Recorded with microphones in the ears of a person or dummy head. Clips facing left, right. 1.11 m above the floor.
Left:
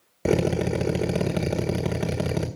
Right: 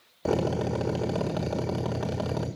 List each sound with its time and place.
0.2 s a drill: 25° left (ahead or behind), 1.4 m